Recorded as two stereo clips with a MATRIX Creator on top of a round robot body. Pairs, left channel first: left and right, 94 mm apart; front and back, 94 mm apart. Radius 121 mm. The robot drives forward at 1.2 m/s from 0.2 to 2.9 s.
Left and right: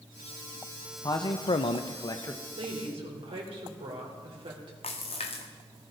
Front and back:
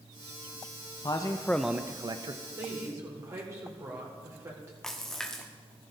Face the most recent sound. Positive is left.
turn(degrees=85)